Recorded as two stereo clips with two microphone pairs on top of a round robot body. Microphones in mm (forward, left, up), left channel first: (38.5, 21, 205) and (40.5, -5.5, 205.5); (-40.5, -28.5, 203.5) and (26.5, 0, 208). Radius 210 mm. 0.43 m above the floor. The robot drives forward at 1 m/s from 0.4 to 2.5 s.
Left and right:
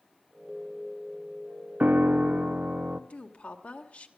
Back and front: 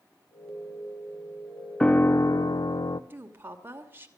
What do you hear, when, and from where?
1.8 s a piano: 80° right, 0.7 m; by 3.0 s 135° right, 0.9 m
3.1 s a woman speaking: 80° left, 2.5 m